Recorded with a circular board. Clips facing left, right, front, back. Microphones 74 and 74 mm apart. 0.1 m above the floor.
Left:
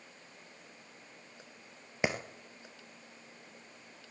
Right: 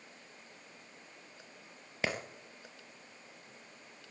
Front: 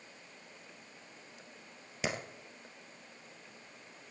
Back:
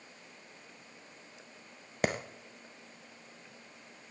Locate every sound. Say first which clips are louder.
2.0 s a clap: left 3 dB, back 5 dB; 160° left, 2 m